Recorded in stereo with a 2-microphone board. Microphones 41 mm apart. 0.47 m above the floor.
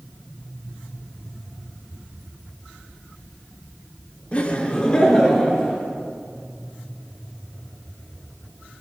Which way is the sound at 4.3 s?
30° left (ahead or behind).